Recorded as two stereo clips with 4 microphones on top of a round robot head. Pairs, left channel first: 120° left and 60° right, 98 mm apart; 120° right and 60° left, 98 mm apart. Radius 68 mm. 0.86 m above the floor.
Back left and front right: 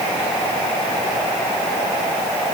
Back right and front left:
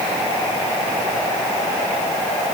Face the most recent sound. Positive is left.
No sound to turn to.